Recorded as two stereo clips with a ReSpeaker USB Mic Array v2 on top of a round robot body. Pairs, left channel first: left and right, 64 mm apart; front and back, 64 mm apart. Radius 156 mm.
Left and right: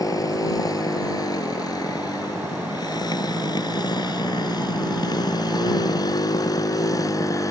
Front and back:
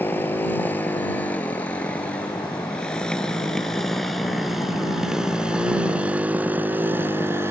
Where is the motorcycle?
60° left; by 7.5 s 125° left.